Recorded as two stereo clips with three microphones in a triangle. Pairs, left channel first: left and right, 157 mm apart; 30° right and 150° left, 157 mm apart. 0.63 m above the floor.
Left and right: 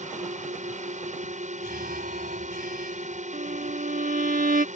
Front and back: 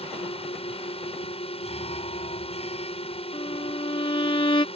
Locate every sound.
0.0 s a drone: 70° right
1.6 s an alarm: 75° right
3.3 s a violin: 80° right